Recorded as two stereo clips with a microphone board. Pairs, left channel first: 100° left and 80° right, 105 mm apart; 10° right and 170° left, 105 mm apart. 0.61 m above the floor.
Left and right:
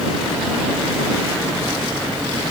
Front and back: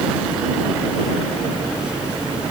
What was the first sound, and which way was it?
Only background noise.